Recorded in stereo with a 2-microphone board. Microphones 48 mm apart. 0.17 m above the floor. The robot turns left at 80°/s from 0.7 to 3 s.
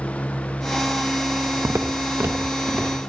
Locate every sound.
1.6 s footsteps: 50° right (ahead or behind), 0.6 m; by 3.1 s 10° left (ahead or behind), 3 m